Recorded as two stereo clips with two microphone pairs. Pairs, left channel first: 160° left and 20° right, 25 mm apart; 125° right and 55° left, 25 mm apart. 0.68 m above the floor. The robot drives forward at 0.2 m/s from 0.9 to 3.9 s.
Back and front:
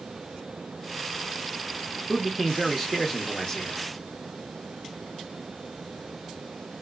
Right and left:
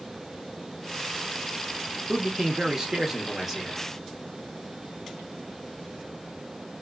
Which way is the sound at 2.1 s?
60° left.